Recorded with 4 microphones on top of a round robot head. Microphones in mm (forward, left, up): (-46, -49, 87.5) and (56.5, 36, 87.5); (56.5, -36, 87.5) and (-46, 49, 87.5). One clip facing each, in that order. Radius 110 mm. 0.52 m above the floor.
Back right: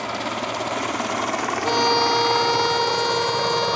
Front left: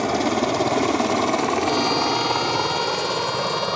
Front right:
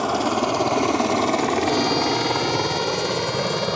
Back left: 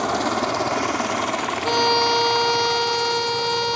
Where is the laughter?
No laughter in this recording.